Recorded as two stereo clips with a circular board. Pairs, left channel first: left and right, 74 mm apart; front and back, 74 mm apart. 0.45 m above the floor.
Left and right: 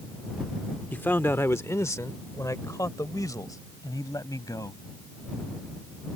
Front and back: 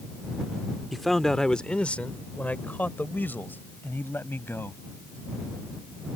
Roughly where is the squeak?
I don't hear a squeak.